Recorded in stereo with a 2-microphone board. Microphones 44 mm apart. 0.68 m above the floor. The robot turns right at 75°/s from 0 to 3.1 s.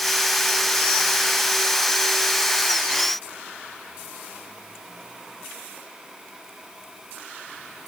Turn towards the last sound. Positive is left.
No sound to turn to.